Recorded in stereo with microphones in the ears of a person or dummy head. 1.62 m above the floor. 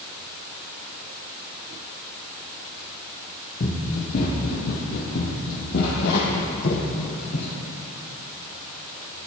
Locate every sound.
3.6 s running footsteps: 40° left (ahead or behind), 2.5 m; by 7.5 s 60° left (ahead or behind), 4.5 m